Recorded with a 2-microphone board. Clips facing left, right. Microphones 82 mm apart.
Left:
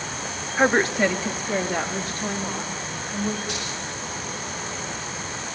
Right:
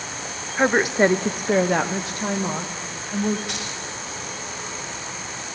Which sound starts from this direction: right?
Keys jangling, at 3.5 s.